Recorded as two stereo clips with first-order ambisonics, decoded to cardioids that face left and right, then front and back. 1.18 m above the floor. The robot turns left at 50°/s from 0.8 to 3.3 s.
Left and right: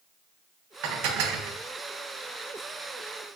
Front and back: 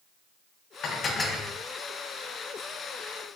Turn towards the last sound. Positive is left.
turn(degrees=180)